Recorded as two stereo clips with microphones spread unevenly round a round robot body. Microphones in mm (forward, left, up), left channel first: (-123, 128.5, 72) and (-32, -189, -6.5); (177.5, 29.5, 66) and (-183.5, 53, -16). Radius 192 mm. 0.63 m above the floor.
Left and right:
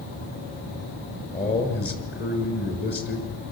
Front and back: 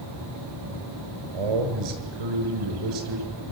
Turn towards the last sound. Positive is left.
turn(degrees=165)